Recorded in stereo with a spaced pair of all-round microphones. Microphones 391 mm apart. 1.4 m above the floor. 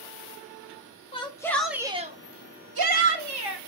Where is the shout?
15° left (ahead or behind), 1.1 m; by 3.6 s 75° right (ahead or behind), 1.0 m.